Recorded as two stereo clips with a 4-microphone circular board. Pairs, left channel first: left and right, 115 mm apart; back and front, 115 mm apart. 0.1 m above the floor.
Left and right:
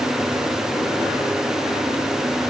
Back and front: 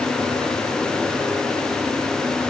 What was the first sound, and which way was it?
Only background noise.